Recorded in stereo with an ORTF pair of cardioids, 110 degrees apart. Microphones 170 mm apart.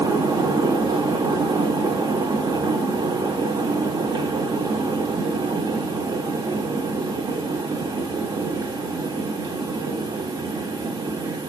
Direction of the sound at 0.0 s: 25° right.